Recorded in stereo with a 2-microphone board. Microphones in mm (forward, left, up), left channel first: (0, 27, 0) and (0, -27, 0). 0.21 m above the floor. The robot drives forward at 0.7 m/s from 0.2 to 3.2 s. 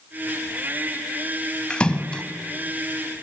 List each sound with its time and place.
1.7 s a splash: 20° left (ahead or behind), 1.3 m